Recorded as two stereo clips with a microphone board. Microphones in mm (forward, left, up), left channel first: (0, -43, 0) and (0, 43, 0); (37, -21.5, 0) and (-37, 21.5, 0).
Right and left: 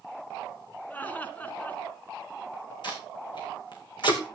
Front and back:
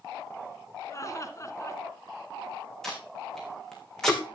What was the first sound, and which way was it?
Laughter, 30° right.